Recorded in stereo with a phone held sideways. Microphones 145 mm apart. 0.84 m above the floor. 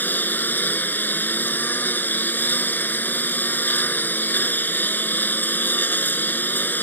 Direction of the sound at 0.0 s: 10° left (ahead or behind).